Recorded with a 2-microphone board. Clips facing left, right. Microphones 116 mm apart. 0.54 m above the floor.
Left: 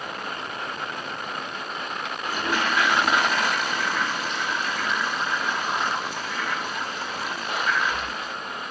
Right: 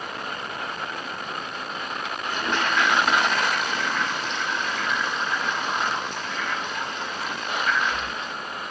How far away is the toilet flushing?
About 1.6 m.